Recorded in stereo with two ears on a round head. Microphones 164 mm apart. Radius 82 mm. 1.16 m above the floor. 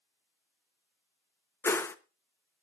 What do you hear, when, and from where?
1.6 s a whoosh: 15° left (ahead or behind), 0.8 m